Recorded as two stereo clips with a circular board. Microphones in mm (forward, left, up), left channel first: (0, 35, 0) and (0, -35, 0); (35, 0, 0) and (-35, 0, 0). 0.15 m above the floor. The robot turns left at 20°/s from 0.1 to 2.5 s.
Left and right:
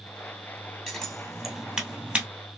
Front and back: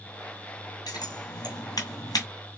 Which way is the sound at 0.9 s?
10° left.